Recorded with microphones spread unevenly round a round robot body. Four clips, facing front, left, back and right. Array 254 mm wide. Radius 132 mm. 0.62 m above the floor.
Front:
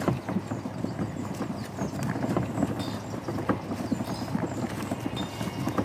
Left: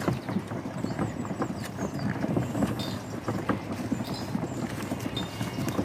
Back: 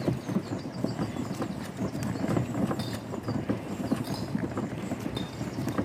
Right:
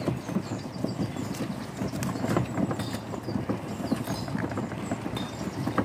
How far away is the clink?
About 0.8 m.